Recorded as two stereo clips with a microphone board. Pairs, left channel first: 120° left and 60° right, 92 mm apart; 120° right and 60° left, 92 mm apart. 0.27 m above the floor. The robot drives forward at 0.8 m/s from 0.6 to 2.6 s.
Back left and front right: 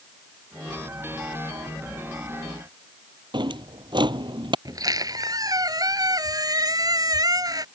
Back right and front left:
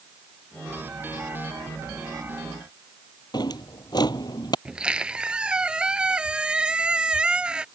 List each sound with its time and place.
3.3 s a drawer: 85° right
4.7 s a squeak: 20° right